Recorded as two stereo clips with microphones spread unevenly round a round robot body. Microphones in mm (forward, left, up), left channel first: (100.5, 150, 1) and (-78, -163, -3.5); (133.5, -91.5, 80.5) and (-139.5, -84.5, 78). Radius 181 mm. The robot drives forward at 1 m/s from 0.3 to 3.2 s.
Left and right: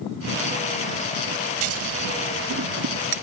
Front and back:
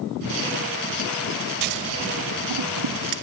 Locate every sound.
1.6 s scissors: 170° right; by 3.2 s straight behind